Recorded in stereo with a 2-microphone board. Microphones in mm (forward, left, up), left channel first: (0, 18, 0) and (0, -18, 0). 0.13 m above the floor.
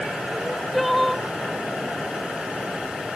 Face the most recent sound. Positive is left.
turn(degrees=0)  # may be behind; listen again after turning